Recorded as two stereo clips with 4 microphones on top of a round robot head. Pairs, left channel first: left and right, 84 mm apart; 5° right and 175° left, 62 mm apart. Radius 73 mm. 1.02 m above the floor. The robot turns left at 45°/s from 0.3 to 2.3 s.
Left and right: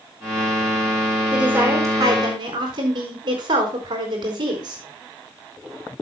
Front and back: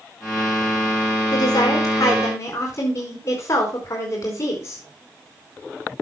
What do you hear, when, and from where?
1.3 s a woman speaking: 10° right, 4 m; by 4.8 s 55° right, 4 m